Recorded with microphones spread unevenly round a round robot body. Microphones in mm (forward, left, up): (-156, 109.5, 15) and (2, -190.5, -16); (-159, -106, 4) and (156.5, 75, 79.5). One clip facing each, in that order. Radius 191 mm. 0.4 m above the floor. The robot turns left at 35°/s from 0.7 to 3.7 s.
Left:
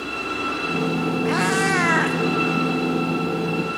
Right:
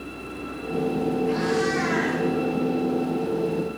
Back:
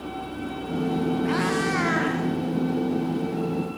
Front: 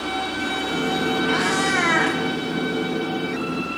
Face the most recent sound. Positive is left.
turn(degrees=40)